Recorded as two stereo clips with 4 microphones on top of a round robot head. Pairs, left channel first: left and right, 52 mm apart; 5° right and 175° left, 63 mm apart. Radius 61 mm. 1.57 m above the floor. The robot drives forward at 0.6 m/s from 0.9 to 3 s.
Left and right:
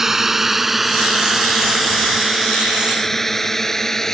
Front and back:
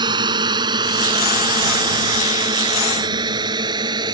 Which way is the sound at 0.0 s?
170° right.